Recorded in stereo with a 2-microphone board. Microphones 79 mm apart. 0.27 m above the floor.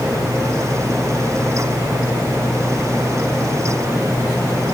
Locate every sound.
Only background noise.